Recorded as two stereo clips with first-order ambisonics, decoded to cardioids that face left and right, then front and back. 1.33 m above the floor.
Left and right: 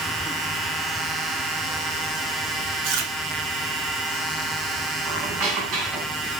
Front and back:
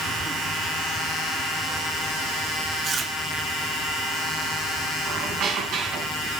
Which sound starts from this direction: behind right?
A squeak, at 5.0 s.